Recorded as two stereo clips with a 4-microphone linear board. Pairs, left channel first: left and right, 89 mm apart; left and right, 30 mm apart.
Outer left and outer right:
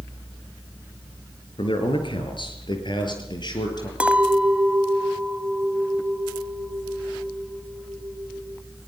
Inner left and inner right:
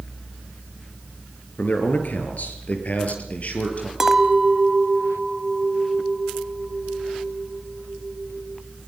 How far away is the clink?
About 1.2 m.